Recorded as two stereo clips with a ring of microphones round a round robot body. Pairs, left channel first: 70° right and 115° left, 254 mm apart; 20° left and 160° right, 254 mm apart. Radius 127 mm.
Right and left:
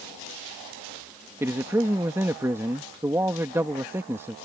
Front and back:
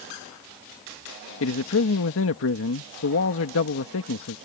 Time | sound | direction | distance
1.4 | a man speaking | 35° left | ?